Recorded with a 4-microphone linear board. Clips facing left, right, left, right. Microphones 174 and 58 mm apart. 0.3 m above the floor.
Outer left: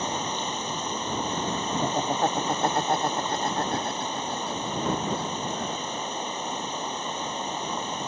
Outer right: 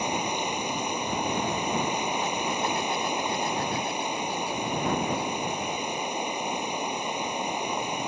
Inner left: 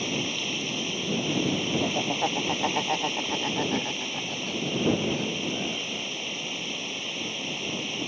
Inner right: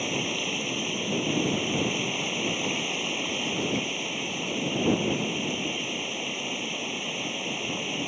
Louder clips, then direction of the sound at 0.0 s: Outer right 1 dB, inner right 1 dB; 10° right (ahead or behind).